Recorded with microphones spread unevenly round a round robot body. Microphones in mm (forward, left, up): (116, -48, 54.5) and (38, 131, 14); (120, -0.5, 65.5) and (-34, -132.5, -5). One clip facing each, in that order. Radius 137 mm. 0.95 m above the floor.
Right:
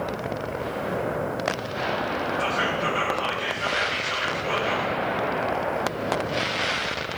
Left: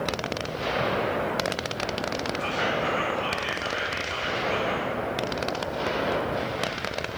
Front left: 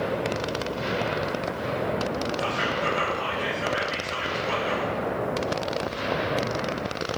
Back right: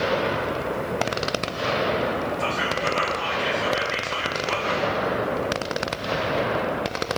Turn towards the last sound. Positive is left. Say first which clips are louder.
# right 1 dB, back right 1 dB
turn(degrees=-40)